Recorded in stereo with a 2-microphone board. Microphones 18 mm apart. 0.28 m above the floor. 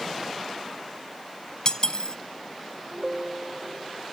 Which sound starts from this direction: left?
Cutlery clinking, at 1.6 s.